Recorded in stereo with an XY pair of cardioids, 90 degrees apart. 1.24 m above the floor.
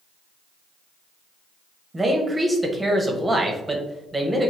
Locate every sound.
1.9 s a man speaking: 15° right, 0.9 m